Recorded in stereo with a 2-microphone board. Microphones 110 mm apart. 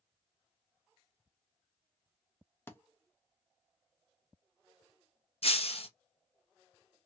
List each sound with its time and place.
2.7 s a thud: 20° left (ahead or behind), 0.5 m
5.4 s breaking glass: 65° left (ahead or behind), 0.7 m